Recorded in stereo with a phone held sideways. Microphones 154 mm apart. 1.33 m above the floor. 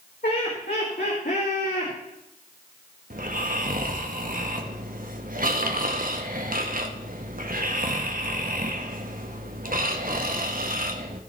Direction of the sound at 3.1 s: 65° right (ahead or behind).